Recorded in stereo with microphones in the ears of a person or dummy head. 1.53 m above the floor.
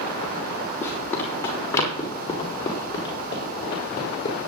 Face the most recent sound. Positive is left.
turn(degrees=25)  # may be behind; listen again after turning